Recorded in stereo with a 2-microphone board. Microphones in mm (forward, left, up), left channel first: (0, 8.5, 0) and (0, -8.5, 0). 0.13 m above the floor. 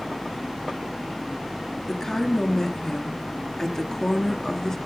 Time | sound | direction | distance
1.9 | a woman speaking | 30° left (ahead or behind) | 2 m